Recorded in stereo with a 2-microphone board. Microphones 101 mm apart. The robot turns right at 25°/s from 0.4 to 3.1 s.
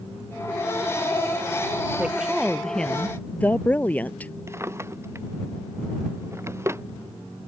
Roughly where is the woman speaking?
Centre.